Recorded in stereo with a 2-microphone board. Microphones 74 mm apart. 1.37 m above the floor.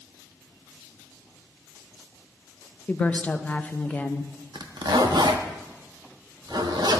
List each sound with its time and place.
2.9 s a woman speaking: 20° left (ahead or behind), 0.5 m
4.5 s a zipper: 75° right (ahead or behind), 0.7 m